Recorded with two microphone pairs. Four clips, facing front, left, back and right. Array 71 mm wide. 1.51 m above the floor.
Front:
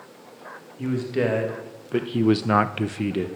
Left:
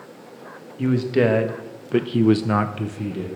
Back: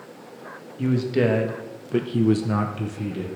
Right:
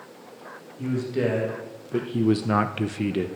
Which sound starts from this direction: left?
A man speaking, at 0.8 s.